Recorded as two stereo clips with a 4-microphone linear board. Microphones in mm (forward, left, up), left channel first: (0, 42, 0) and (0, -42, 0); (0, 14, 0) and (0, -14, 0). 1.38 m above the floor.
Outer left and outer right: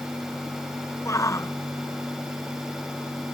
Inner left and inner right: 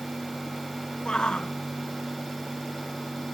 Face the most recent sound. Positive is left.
turn(degrees=35)  # may be behind; listen again after turning